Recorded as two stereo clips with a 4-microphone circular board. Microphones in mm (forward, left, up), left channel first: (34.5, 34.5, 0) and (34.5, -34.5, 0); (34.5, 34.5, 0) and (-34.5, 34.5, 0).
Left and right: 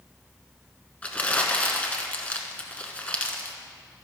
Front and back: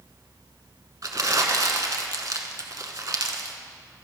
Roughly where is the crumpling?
Behind left.